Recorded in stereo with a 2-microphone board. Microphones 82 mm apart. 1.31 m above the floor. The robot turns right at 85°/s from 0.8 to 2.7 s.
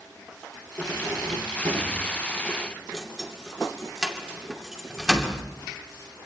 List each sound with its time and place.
0.8 s keys jangling: 15° right (ahead or behind), 2.5 m; by 5.4 s 5° right (ahead or behind), 2.5 m